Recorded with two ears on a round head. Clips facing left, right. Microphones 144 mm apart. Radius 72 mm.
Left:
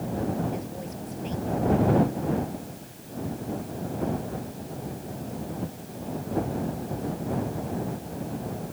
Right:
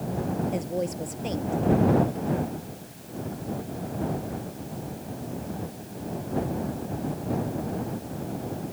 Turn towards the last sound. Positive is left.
turn(degrees=-60)  # may be behind; listen again after turning